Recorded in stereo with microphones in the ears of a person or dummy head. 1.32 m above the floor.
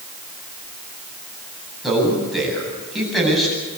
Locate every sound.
1.8 s a man speaking: centre (ahead or behind), 8 m